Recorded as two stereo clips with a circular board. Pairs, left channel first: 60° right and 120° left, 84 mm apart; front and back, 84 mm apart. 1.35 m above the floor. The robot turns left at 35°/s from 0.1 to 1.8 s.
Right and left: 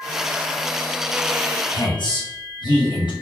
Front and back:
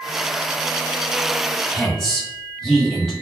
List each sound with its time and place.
1.7 s a woman speaking: 85° right, 1.3 m; by 3.1 s 90° right, 1.3 m